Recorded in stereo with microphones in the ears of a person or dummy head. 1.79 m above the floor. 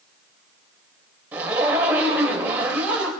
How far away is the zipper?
About 2.5 m.